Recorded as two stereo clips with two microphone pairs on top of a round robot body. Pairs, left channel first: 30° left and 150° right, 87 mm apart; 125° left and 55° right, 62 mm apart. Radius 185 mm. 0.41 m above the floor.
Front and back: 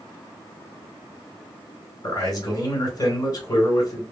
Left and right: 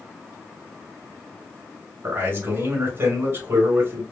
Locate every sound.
2.0 s a man speaking: 15° right, 2 m